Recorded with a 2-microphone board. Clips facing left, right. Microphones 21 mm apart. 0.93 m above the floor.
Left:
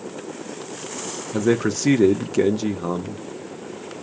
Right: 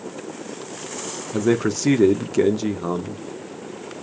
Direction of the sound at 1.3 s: 5° left (ahead or behind).